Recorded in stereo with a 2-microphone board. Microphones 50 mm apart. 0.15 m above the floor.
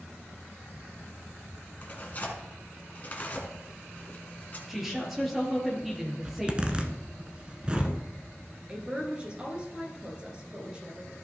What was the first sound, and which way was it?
Tearing paper, 35° left (ahead or behind).